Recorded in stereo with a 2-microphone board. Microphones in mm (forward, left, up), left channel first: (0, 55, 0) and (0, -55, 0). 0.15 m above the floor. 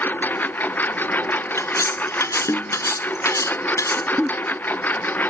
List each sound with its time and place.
0.0 s a lawn mower: 15° left (ahead or behind)
1.6 s cutlery clinking: 30° left (ahead or behind)
4.2 s a giggle: 5° right (ahead or behind)